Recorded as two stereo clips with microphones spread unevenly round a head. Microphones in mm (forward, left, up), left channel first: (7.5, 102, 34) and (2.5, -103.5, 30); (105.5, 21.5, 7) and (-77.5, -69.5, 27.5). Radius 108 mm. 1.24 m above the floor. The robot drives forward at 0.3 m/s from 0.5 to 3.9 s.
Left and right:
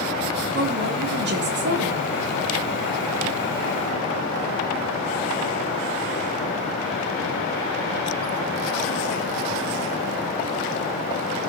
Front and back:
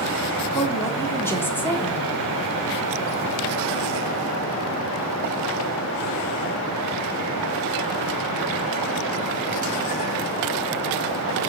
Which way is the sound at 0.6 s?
50° right.